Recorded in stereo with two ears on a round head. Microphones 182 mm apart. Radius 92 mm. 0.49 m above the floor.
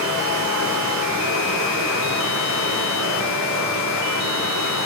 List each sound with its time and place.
0.0 s running water: 80° right, 4.5 m